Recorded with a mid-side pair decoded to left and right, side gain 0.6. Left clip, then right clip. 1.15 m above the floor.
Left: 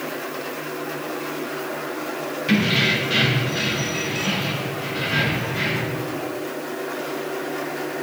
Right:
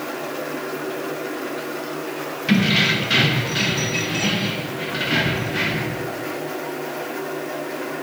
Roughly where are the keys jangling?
Ahead.